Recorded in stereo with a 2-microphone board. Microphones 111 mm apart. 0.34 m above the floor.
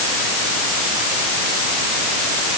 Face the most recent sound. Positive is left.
No sound to turn to.